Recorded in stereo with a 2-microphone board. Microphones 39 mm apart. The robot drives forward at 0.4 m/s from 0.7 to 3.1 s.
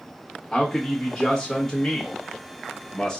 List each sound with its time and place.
0.5 s a man speaking: 15° left (ahead or behind), 1.2 m; by 3.2 s 20° left (ahead or behind), 1.0 m